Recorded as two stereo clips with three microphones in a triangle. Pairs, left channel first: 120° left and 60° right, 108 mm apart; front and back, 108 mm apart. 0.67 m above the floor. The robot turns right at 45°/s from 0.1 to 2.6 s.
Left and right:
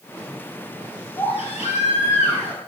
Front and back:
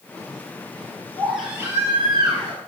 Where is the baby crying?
85° left, 6.5 m; by 2.6 s 150° left, 6.5 m.